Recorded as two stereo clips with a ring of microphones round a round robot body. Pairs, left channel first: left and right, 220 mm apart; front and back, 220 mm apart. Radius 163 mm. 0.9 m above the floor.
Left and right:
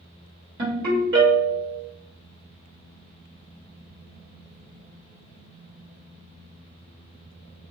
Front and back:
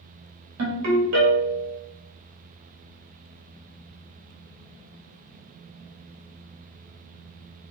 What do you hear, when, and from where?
0.6 s a ringtone: 150° right, 0.9 m